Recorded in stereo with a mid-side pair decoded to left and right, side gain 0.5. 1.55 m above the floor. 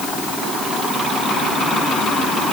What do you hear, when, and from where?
Only background noise.